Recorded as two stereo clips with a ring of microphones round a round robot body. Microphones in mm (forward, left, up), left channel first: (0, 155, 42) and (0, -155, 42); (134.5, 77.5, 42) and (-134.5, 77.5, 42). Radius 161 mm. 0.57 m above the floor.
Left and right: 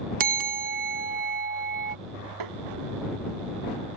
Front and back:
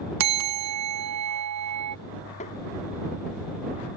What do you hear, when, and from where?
0.2 s a bell: 155° right
2.4 s tapping: 70° right